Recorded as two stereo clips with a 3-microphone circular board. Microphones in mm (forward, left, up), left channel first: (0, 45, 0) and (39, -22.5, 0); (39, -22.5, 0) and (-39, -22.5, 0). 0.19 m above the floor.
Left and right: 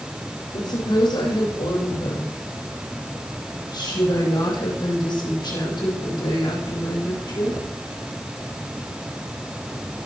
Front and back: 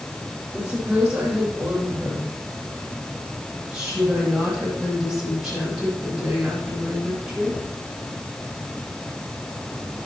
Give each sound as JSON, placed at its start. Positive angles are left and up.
{"t": 0.5, "sound": "a woman speaking", "azimuth_deg": 105, "distance_m": 7.0}